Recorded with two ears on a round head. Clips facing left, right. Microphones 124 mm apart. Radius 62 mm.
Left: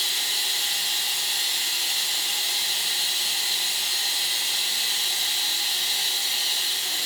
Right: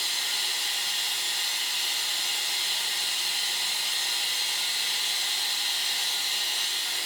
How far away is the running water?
About 4.5 m.